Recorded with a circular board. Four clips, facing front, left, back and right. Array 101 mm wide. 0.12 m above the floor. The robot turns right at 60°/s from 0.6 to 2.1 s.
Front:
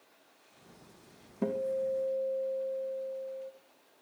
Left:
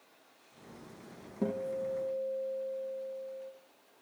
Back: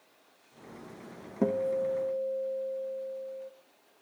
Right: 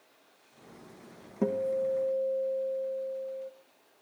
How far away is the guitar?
About 3 m.